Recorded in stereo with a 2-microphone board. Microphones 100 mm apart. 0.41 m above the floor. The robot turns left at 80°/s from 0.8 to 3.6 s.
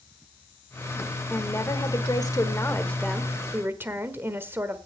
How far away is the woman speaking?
About 1.3 m.